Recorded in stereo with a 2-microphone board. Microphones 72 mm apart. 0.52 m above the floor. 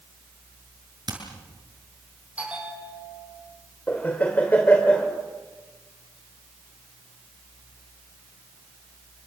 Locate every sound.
1.1 s hammering: 60° right (ahead or behind), 7 m
2.4 s a bell: 15° right (ahead or behind), 6 m
3.9 s laughter: 20° left (ahead or behind), 2 m